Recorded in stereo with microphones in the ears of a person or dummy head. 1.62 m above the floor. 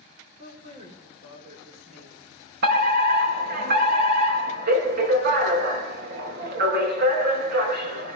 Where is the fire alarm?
55° right (ahead or behind), 4 m.